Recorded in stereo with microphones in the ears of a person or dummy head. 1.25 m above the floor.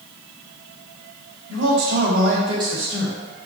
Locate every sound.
1.5 s a man speaking: 65° right (ahead or behind), 1.1 m; by 3.2 s 5° left (ahead or behind), 0.8 m